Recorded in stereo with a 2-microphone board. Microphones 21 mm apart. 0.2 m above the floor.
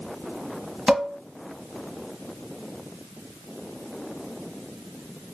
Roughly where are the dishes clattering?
Centre.